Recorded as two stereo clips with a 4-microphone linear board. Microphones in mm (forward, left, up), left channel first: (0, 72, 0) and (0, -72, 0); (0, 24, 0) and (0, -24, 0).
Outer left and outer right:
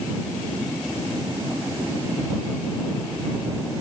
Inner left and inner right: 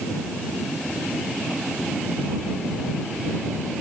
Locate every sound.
Only background noise.